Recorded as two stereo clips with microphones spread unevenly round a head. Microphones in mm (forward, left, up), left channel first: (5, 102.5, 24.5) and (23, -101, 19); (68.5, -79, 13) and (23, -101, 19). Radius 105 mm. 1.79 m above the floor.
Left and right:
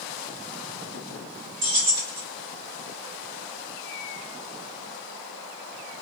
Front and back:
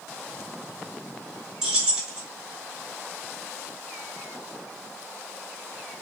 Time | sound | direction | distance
1.6 | keys jangling | 80° right | 2 m